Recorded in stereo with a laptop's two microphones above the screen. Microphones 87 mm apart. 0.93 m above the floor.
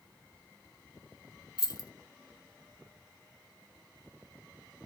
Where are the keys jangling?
50° left (ahead or behind), 0.6 m.